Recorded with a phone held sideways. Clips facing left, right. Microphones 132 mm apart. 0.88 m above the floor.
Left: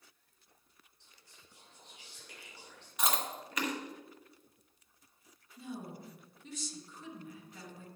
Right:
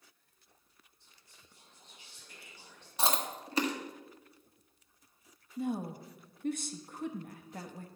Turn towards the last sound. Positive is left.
turn(degrees=-55)  # may be behind; listen again after turning